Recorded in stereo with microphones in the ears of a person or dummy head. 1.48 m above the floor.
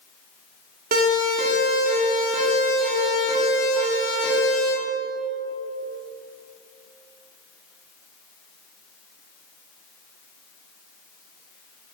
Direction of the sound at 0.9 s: 45° right (ahead or behind).